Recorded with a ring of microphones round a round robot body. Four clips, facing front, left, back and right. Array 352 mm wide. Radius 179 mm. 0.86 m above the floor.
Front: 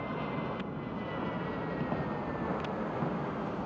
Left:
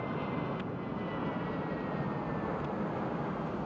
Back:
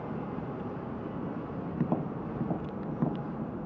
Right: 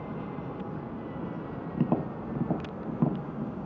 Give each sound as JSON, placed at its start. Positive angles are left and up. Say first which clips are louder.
{"t": 1.8, "sound": "tapping", "louder": "right 6 dB, back 2 dB", "azimuth_deg": -105}